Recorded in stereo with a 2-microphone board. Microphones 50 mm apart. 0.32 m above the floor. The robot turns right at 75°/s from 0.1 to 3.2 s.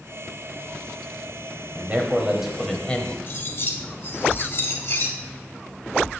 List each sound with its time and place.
1.8 s a man speaking: 60° right, 1.1 m; by 3.2 s 45° left, 1.1 m
3.3 s cutlery clinking: 50° left (ahead or behind), 0.8 m